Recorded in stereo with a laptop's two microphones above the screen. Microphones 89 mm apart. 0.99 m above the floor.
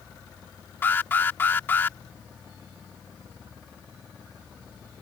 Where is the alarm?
25° left (ahead or behind).